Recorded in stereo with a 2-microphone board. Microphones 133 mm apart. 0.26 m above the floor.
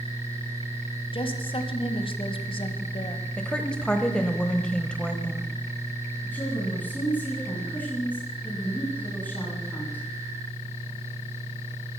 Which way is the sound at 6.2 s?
15° left (ahead or behind).